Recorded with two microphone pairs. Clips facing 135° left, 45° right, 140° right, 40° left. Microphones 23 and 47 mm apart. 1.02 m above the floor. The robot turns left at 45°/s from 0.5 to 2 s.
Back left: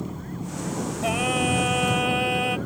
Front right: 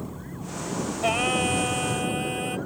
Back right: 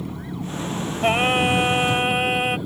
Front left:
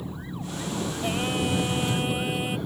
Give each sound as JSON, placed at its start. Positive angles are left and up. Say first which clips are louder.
{"t": 0.0, "sound": "an engine running", "louder": "back left 3 dB, back right 5 dB", "azimuth_deg": -160}
{"t": 1.0, "sound": "singing", "louder": "even, back right 10 dB", "azimuth_deg": -120}